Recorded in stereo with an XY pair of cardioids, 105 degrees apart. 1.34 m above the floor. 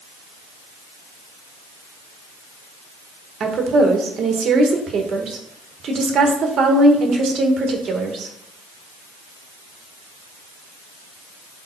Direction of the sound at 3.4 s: 55° right.